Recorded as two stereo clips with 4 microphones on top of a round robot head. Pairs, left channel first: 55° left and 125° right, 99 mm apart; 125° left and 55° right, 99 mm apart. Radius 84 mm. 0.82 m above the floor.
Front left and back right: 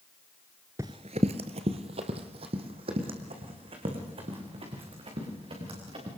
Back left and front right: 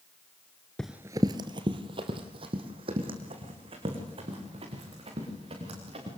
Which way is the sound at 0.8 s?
160° right.